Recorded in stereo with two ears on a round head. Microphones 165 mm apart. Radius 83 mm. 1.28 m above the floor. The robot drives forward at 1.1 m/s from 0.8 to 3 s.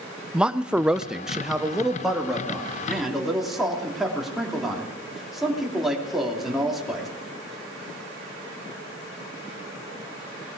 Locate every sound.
0.3 s a man speaking: 5° right (ahead or behind), 0.5 m; by 7.1 s centre (ahead or behind), 3 m